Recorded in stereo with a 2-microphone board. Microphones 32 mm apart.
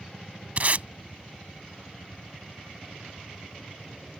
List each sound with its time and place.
0.6 s tape being pulled: 50° right (ahead or behind)